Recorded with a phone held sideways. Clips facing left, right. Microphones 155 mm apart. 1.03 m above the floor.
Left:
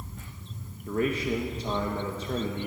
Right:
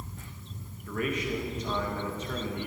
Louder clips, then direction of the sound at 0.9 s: Left 4 dB; 30° left (ahead or behind).